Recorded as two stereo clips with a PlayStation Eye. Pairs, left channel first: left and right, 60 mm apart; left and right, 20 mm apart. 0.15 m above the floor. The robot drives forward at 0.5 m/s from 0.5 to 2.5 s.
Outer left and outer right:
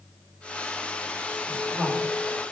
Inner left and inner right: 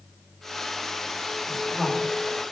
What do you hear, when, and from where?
1.5 s a woman speaking: 30° right (ahead or behind), 3 m